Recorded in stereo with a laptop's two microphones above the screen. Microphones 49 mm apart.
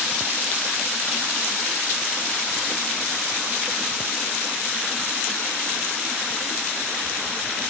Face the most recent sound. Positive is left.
No sound to turn to.